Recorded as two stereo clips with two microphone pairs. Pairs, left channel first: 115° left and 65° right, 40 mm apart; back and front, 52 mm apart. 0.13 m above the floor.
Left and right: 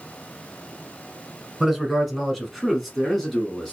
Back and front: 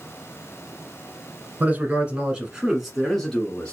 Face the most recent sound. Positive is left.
turn(degrees=-165)